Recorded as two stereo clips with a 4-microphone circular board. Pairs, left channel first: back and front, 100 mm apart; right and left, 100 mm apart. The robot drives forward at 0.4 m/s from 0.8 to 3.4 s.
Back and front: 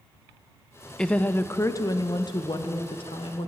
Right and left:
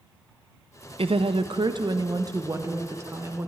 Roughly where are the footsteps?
I don't hear footsteps.